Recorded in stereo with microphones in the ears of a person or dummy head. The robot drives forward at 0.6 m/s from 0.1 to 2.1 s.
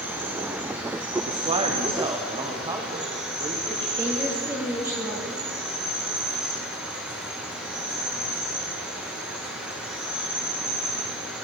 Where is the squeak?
No squeak in this recording.